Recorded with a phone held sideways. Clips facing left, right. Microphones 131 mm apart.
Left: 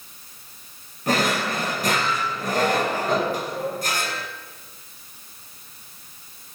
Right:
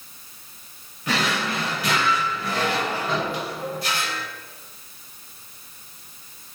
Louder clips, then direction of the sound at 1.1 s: Left 3 dB; 40° left (ahead or behind).